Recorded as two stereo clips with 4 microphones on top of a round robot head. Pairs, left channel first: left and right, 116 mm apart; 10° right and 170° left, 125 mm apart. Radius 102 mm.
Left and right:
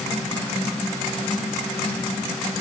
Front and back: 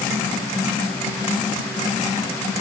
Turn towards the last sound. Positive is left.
No sound to turn to.